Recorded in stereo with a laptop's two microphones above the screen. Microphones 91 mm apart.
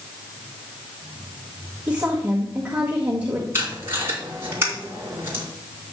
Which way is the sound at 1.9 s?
20° right (ahead or behind).